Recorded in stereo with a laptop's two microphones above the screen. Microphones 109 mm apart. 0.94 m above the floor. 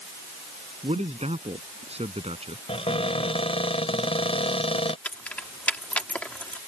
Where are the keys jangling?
15° left (ahead or behind).